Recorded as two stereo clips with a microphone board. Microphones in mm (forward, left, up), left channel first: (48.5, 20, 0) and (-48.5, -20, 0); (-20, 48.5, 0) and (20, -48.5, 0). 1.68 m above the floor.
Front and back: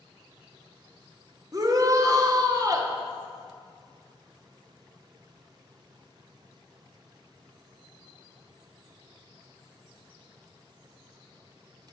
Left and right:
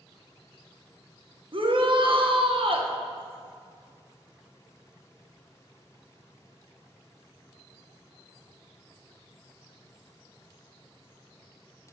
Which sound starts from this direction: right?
A shout, at 1.5 s.